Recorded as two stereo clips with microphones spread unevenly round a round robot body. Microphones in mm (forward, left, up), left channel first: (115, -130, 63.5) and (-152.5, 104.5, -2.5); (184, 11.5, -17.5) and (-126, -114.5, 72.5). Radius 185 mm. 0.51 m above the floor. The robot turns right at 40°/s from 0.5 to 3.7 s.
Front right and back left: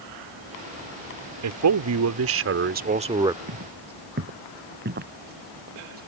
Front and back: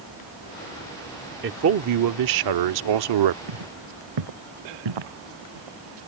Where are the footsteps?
165° right; by 6.1 s 155° right.